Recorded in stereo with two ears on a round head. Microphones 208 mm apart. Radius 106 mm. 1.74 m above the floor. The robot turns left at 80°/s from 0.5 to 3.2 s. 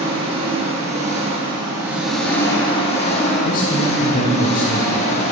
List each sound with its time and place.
0.0 s an engine running: 20° right (ahead or behind), 1.2 m; by 5.3 s 30° left (ahead or behind), 1.2 m
3.5 s a man speaking: 35° left (ahead or behind), 0.8 m